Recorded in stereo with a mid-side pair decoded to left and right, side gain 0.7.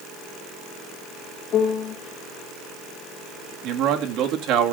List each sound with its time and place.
1.5 s a piano: 40° left, 2.5 m
3.6 s a man speaking: 60° right, 2 m